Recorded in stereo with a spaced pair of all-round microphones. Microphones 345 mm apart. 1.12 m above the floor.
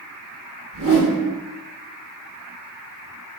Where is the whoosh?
65° right (ahead or behind), 2 m.